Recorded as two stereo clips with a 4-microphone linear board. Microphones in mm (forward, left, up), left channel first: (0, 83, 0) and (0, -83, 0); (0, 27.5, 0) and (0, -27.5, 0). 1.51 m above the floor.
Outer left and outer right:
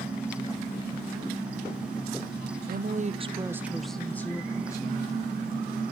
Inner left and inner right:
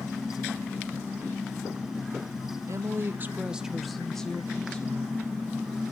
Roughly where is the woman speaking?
Right.